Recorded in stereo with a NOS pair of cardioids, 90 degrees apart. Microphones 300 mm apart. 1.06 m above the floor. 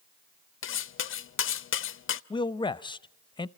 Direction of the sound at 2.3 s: 15° left.